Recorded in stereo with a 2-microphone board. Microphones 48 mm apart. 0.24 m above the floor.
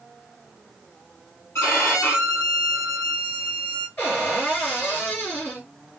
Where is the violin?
80° left, 2.5 m.